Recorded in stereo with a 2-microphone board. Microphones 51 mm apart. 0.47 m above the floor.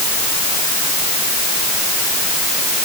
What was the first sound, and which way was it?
Only background noise.